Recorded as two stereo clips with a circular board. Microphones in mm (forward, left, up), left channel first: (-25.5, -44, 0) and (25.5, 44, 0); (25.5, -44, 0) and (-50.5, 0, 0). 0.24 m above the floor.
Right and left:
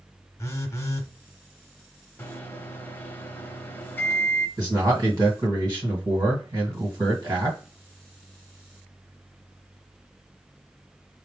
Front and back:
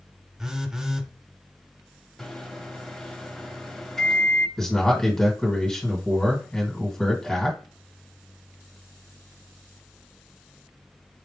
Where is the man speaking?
45° left, 1.7 m.